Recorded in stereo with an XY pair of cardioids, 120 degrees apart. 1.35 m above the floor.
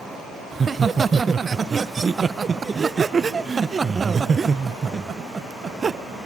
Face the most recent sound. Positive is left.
turn(degrees=-25)